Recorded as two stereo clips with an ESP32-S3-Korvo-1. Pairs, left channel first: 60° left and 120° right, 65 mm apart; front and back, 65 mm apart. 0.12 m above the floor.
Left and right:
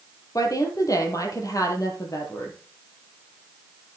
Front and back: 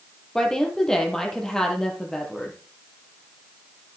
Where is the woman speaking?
80° left, 3.5 m.